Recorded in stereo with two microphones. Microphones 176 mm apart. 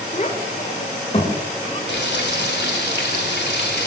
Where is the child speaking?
45° left (ahead or behind), 5.5 m; by 1.8 s 35° left (ahead or behind), 7 m.